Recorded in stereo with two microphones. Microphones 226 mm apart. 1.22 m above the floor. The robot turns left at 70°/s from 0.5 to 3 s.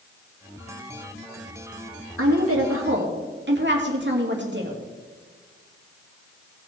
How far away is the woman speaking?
About 2.5 m.